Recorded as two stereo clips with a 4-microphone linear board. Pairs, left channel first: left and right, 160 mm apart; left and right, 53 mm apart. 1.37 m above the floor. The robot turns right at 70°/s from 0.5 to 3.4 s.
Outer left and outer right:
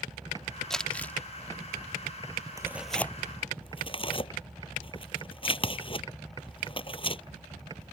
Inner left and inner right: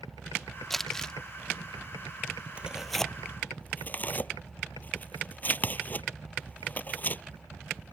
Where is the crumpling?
5° left (ahead or behind); by 1.1 s 15° left (ahead or behind).